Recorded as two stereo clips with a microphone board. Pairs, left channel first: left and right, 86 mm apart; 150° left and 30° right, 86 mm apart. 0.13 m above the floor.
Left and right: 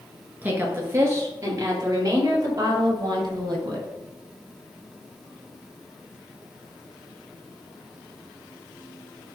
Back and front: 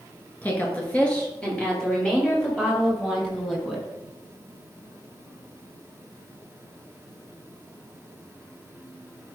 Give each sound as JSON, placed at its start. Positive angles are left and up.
{"t": 0.4, "sound": "a woman speaking", "azimuth_deg": -150, "distance_m": 2.0}